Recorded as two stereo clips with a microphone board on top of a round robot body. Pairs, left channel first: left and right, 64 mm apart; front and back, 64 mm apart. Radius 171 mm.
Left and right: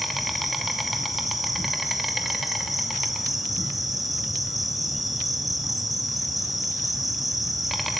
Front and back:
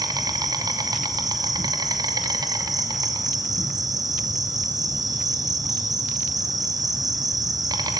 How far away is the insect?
About 2.5 m.